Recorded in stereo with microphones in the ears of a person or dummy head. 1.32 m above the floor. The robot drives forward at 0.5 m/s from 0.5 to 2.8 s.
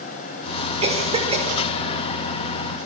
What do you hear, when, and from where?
0.8 s a cough: 30° right (ahead or behind), 5.5 m